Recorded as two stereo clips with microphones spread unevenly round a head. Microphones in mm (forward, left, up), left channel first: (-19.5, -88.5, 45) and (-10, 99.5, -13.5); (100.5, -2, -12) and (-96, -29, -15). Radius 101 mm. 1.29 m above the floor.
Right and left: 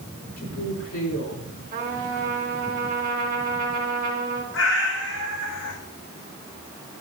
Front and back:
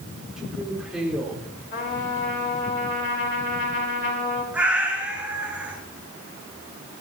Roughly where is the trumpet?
Ahead left.